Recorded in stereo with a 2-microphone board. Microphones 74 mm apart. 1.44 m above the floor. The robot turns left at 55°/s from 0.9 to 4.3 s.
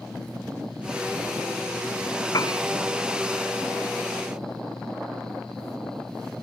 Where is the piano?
55° left (ahead or behind), 0.7 m; by 2.6 s 65° left (ahead or behind), 0.7 m.